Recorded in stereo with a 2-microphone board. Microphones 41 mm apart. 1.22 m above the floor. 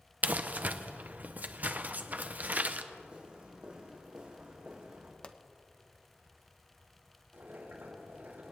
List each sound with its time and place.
0.2 s crumpling: 45° right (ahead or behind), 0.6 m
2.9 s footsteps: 25° right (ahead or behind), 3.5 m
5.2 s a pop: 25° left (ahead or behind), 0.6 m
7.3 s boiling: 65° right (ahead or behind), 4 m